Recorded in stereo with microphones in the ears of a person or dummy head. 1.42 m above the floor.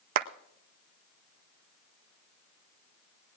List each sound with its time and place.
0.1 s a clap: 55° right (ahead or behind), 0.6 m